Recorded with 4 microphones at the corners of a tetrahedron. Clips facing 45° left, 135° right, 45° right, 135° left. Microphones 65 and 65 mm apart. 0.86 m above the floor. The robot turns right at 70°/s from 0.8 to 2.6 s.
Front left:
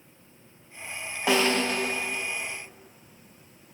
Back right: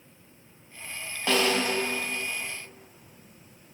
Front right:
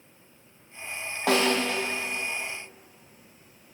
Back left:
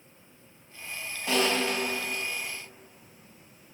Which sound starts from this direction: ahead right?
A snare drum, at 1.3 s.